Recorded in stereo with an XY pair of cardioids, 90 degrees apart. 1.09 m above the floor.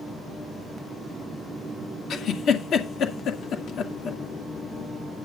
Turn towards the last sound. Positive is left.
turn(degrees=70)